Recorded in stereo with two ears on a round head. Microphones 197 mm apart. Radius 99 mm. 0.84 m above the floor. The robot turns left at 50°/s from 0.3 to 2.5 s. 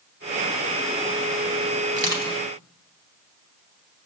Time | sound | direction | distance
1.9 | crushing | 30° right (ahead or behind) | 1.0 m